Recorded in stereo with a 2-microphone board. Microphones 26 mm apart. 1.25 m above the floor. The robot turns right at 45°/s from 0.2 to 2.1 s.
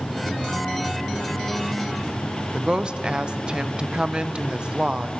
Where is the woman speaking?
35° right (ahead or behind), 0.8 m.